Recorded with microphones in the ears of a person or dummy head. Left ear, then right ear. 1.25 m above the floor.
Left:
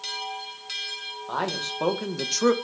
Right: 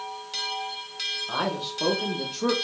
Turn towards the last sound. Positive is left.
turn(degrees=85)